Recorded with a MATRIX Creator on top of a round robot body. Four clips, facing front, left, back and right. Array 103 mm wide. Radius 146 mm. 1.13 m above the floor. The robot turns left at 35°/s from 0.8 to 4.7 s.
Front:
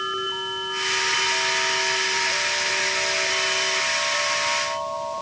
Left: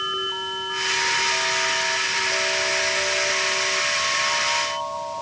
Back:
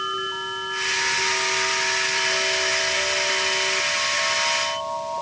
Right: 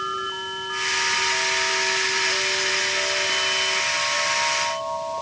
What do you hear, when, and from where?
Only background noise.